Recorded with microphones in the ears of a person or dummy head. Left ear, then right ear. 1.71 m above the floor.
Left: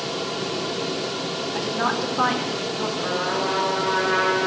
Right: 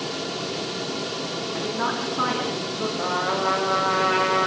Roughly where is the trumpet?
Right.